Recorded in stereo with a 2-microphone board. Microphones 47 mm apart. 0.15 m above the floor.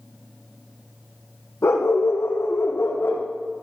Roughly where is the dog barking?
Left.